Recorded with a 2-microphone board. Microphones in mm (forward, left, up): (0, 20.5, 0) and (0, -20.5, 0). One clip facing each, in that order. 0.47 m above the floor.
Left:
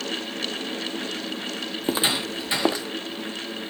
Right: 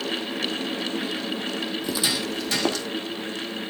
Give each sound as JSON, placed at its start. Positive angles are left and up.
{"t": 1.8, "sound": "footsteps", "side_deg": 40, "distance_m": 0.9}